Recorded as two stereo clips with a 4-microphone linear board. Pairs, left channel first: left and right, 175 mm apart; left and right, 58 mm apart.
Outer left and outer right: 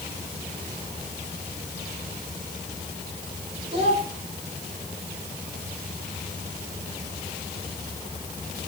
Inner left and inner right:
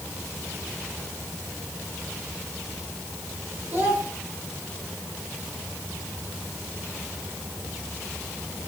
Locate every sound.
3.7 s a child speaking: 35° right (ahead or behind), 4.5 m